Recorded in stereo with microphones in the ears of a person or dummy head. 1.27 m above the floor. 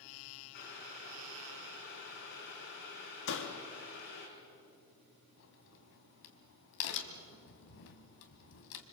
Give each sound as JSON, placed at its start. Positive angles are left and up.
{"t": 0.5, "sound": "boiling", "side_deg": 50, "distance_m": 5.5}
{"t": 3.3, "sound": "a door slam", "side_deg": 60, "distance_m": 2.0}
{"t": 5.4, "sound": "a crack", "side_deg": 65, "distance_m": 2.0}